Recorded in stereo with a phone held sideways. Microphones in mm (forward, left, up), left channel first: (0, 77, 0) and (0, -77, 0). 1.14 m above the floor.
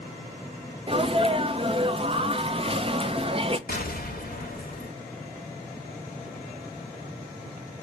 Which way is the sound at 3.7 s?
65° left (ahead or behind).